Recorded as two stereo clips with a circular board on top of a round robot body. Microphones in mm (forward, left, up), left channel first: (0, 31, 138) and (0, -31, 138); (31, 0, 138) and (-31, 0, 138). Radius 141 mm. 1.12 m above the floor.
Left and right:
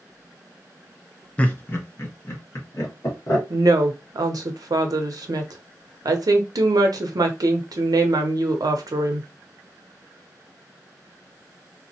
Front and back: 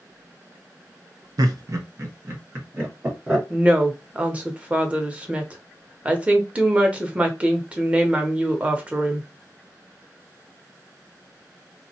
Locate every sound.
1.4 s laughter: 160° left, 0.7 m; by 3.4 s 120° left, 1.7 m
3.5 s a woman speaking: 110° right, 0.6 m